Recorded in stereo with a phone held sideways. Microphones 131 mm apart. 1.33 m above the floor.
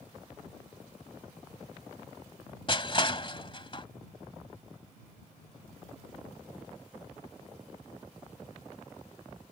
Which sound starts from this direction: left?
Crushing, at 2.7 s.